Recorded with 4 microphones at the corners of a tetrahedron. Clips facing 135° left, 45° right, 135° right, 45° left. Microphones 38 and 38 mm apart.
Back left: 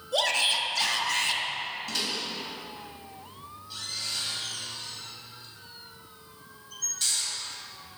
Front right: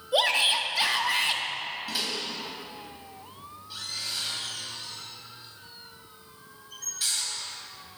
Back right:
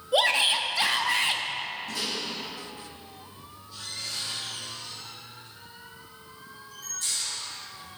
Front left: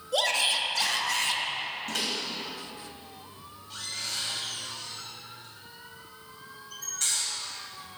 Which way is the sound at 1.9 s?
35° left.